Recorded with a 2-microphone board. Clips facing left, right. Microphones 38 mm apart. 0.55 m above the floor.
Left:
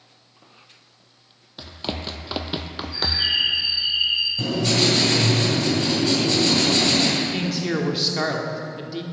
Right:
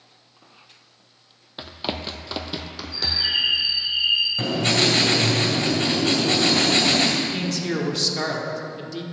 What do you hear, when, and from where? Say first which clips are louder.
1.6 s running footsteps: right 1 dB; 30° right (ahead or behind), 0.7 m; by 3.3 s 50° left (ahead or behind), 1.1 m
2.9 s a bird: left 1 dB; 75° left (ahead or behind), 4 m
4.4 s writing: even; 40° right (ahead or behind), 2 m
7.2 s a man speaking: left 1 dB; 15° left (ahead or behind), 1.0 m